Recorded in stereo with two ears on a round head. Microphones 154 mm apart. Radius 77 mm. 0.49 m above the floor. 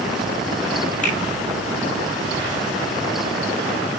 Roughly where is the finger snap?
Left.